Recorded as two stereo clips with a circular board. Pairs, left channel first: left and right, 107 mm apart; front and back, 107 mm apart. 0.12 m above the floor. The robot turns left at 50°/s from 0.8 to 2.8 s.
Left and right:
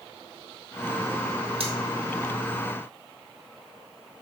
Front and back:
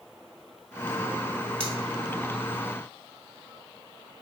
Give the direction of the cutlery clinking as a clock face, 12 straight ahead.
3 o'clock.